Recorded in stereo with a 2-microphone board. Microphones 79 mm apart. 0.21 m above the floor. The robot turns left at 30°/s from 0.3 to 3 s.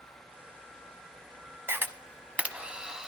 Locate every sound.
1.7 s a camera shutter: 30° right (ahead or behind), 0.7 m; by 3.1 s 10° right (ahead or behind), 0.7 m